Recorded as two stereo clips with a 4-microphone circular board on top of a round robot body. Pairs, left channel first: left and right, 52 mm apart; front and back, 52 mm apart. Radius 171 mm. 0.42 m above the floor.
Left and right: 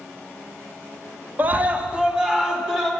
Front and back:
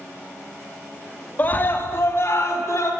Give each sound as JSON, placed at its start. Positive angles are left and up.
{"t": 1.4, "sound": "a scream", "azimuth_deg": -45, "distance_m": 1.0}